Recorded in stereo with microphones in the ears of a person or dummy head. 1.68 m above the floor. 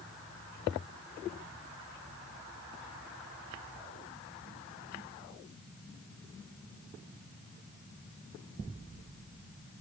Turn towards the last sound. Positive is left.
No sound to turn to.